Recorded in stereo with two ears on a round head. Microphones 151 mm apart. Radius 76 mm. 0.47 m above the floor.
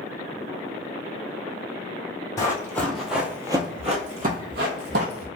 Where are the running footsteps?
20° left (ahead or behind), 1.1 m; by 5.3 s 70° right (ahead or behind), 1.3 m.